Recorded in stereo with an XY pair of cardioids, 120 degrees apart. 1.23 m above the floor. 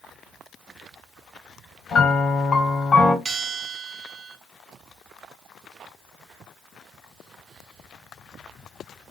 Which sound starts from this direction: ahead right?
A bell, at 3.2 s.